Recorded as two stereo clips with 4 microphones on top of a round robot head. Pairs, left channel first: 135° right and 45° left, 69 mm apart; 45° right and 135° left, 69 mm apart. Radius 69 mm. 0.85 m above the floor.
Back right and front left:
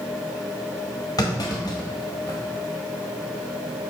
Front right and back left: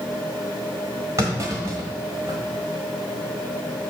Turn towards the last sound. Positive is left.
turn(degrees=-175)